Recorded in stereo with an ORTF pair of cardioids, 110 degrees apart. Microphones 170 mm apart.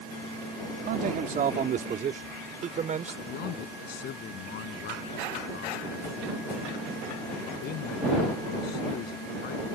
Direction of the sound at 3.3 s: 70° left.